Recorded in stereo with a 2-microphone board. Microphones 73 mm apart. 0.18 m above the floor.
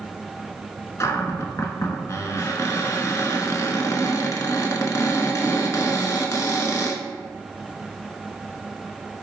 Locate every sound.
1.0 s a cupboard door: 50° left (ahead or behind), 0.5 m